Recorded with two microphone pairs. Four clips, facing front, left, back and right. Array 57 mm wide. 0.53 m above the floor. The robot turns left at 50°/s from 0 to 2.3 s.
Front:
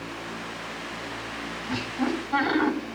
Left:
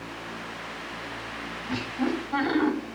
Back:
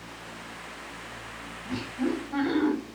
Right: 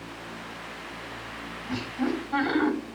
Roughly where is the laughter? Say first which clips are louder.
Left 1 dB, front 1 dB; ahead left.